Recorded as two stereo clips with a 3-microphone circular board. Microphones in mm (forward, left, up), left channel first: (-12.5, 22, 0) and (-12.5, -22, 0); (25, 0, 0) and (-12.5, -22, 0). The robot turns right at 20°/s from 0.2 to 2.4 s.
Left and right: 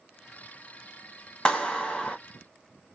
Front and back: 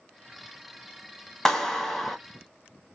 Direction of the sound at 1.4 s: 90° left.